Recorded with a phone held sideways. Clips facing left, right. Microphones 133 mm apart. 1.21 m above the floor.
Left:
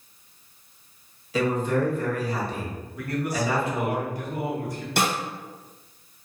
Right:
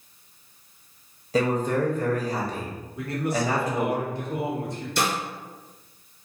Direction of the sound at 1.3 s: 40° right (ahead or behind).